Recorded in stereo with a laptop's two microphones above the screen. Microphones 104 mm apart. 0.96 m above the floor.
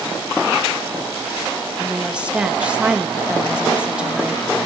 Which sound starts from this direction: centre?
A woman speaking, at 1.8 s.